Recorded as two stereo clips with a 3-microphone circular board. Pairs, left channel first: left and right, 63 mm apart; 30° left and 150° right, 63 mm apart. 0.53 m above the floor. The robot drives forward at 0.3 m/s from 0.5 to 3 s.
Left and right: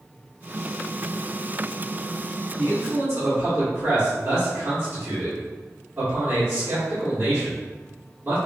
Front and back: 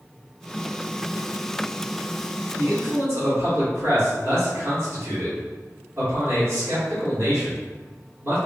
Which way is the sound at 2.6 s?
120° right.